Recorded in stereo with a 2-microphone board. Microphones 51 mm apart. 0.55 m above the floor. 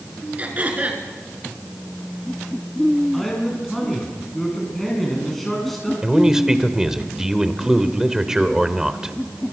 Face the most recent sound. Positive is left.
turn(degrees=-10)  # may be behind; listen again after turning